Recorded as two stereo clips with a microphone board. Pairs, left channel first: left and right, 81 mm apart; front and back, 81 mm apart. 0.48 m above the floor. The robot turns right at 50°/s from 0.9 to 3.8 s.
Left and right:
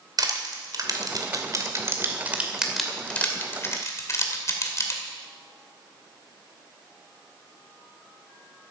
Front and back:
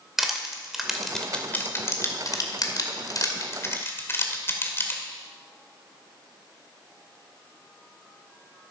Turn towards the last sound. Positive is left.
turn(degrees=50)